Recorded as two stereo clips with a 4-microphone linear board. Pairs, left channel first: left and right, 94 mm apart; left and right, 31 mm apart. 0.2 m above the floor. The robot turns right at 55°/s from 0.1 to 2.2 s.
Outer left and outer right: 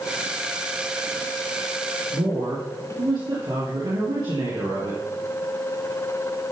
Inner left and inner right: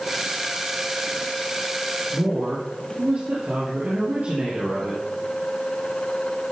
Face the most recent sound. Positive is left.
turn(degrees=-55)  # may be behind; listen again after turning